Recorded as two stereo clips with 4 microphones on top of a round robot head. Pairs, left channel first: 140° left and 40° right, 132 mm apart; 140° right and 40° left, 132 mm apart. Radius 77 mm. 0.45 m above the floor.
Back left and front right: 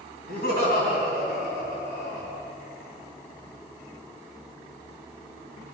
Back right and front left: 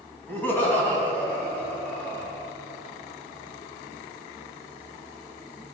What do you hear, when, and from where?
0.3 s laughter: 145° left, 3 m; by 2.3 s 140° left, 4.5 m